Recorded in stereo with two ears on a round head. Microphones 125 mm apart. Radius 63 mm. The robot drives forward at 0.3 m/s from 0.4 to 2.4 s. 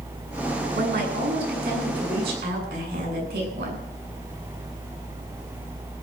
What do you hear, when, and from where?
0.7 s a woman speaking: 85° right, 9 m; by 3.8 s 90° right, 9 m